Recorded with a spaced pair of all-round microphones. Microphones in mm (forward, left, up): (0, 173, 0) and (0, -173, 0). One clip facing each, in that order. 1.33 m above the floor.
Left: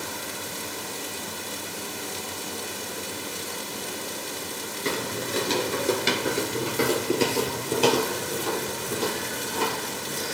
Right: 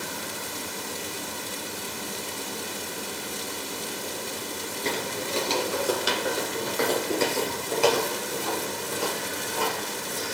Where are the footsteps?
15° left (ahead or behind), 1.3 m; by 10.3 s 50° left (ahead or behind), 3.5 m.